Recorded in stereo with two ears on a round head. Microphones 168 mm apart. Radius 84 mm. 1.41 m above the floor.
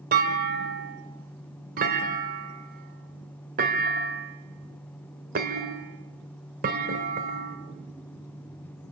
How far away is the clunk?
About 1.6 m.